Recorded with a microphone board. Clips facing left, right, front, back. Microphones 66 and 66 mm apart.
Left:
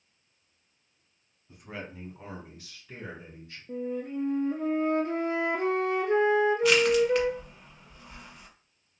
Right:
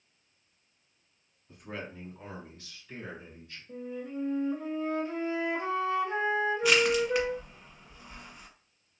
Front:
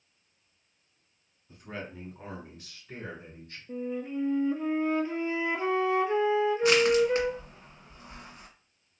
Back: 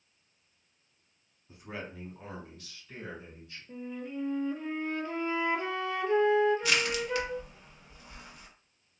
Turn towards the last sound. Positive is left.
turn(degrees=0)